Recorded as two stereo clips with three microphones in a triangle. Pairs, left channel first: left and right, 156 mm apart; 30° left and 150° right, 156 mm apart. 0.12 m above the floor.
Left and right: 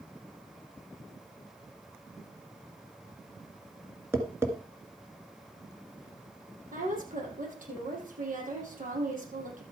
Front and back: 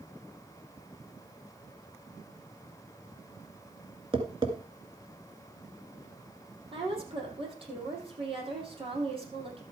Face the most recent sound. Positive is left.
turn(degrees=-100)